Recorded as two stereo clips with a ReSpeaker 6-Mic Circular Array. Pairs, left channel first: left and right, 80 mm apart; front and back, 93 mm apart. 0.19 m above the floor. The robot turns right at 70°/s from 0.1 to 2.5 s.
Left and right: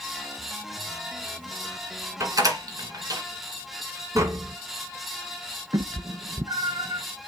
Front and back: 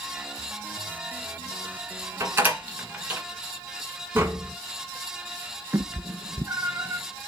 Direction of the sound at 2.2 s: 130° right.